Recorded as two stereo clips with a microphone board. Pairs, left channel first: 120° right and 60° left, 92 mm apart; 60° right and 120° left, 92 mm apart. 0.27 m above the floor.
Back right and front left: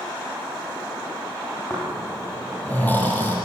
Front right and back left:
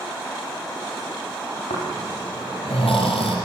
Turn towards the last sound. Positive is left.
turn(degrees=-50)